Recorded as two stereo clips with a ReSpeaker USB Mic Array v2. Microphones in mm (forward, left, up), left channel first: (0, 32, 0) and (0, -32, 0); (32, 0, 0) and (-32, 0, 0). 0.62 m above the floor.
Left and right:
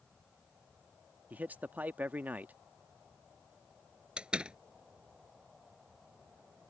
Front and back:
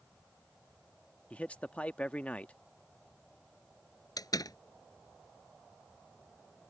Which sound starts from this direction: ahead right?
A man speaking, at 1.3 s.